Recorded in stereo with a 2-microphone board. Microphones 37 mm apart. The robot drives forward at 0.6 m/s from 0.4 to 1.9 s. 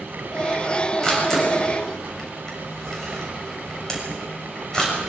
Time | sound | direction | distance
1.0 | a camera shutter | 15° left (ahead or behind) | 7 m